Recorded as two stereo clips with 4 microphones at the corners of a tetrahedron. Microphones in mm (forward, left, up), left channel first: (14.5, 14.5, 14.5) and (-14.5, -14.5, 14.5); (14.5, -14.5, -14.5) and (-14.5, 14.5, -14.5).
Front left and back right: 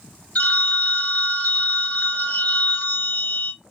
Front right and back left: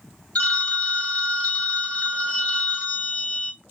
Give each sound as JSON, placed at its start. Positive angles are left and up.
{"t": 0.3, "sound": "a phone ringing", "azimuth_deg": 5, "distance_m": 1.1}